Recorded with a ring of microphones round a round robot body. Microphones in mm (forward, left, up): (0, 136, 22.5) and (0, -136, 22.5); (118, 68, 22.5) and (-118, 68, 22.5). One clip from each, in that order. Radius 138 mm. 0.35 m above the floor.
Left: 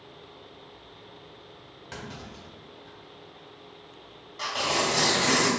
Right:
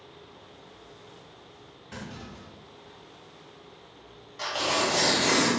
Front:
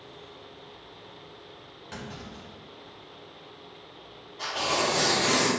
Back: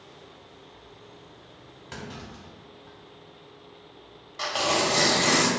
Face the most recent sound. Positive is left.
turn(degrees=180)